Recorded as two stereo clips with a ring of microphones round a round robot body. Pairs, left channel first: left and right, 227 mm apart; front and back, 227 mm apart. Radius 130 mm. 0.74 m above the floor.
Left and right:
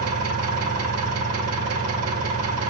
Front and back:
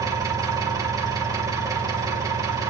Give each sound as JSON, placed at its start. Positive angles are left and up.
{"t": 0.0, "sound": "an engine running", "azimuth_deg": -105, "distance_m": 2.0}